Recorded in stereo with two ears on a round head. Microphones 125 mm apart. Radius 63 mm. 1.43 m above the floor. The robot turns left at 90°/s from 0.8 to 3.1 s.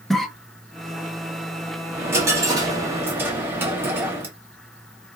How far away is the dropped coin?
About 0.9 m.